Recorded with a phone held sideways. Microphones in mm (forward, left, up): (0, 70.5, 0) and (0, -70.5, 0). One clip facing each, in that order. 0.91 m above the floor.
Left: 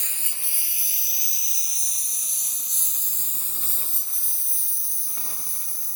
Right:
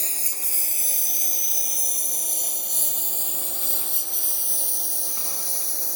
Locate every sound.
0.0 s a lawn mower: 35° right (ahead or behind); by 6.0 s 75° right (ahead or behind)